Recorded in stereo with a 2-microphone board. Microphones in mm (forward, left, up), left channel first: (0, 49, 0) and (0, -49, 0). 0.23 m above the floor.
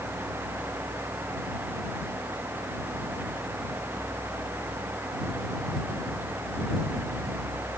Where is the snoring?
No snoring in this recording.